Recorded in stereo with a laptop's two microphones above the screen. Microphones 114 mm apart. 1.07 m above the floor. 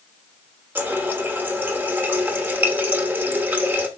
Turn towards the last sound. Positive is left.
turn(degrees=-15)  # may be behind; listen again after turning